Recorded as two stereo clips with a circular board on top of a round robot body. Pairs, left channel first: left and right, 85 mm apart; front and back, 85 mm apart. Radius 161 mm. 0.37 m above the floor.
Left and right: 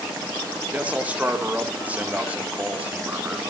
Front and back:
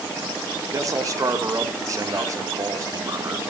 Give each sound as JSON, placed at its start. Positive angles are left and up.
{"t": 0.7, "sound": "a man speaking", "azimuth_deg": -155, "distance_m": 1.8}